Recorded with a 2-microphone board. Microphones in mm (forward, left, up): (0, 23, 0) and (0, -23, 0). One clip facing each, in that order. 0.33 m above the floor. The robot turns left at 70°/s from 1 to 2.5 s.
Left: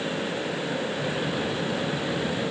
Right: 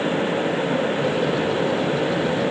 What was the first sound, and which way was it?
Only background noise.